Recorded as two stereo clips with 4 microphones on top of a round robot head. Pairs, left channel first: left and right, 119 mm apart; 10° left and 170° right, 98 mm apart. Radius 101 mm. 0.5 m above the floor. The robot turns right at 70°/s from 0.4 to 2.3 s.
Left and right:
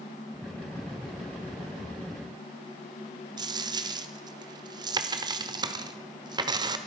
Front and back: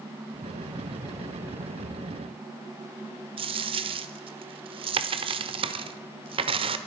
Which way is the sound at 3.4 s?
145° right.